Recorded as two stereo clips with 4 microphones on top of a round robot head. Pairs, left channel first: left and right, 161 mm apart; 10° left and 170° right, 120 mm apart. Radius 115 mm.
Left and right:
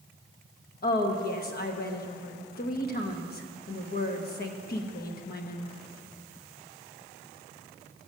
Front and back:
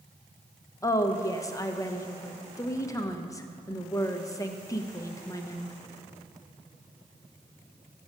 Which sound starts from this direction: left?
A woman speaking, at 0.8 s.